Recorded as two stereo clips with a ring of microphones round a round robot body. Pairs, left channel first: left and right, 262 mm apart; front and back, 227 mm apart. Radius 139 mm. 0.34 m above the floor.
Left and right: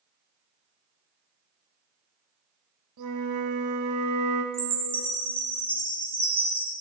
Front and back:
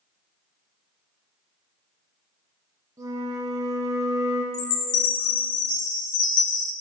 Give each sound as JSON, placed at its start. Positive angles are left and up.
{"t": 3.0, "sound": "a flute", "azimuth_deg": -100, "distance_m": 1.2}
{"t": 4.5, "sound": "a chime", "azimuth_deg": -10, "distance_m": 1.6}